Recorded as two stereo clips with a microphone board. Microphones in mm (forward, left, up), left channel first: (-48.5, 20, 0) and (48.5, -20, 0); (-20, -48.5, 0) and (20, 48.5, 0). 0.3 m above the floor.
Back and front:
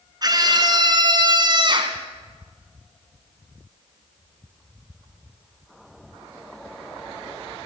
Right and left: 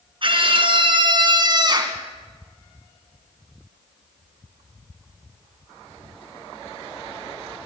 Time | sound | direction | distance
0.2 | a scream | 30° left | 3 m